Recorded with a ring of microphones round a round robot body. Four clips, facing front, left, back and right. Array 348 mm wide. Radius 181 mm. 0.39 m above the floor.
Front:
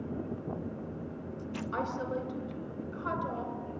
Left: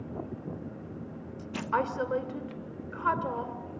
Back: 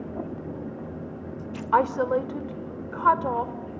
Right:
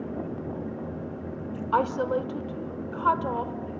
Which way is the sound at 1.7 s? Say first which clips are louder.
Right 4 dB, back 14 dB; 165° right.